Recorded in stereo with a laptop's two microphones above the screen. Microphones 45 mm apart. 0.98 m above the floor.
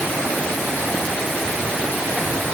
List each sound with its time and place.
Only background noise.